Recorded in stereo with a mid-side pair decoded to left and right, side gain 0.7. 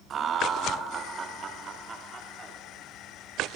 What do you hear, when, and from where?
0.1 s laughter: 35° right, 1.0 m; by 2.6 s 30° right, 2.5 m